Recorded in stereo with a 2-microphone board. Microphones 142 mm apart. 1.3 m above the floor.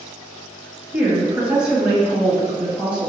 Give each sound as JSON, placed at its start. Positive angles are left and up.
{"t": 0.9, "sound": "a woman speaking", "side_deg": -10, "distance_m": 1.5}